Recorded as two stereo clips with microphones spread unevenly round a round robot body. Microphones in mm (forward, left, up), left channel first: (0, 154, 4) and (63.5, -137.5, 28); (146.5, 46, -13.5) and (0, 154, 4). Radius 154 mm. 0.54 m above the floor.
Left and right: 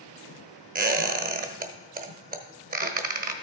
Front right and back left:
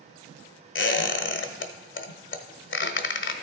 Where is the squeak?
15° right, 0.9 m.